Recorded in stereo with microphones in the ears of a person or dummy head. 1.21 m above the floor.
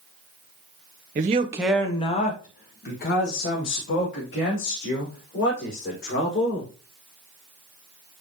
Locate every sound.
1.1 s a man speaking: 40° right (ahead or behind), 0.7 m; by 6.7 s 65° left (ahead or behind), 5 m